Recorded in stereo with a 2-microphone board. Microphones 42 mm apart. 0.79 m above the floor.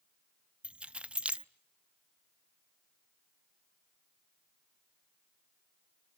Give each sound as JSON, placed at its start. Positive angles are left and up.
{"t": 0.6, "sound": "keys jangling", "side_deg": -30, "distance_m": 0.5}